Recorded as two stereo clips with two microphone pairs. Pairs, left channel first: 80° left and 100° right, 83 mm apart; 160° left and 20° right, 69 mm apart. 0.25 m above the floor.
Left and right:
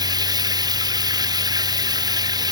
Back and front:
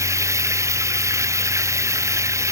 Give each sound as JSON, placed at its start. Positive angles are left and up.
{"t": 0.0, "sound": "running water", "azimuth_deg": -60}